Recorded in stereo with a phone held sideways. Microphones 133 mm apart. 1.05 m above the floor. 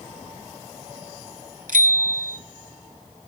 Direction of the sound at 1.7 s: 85° right.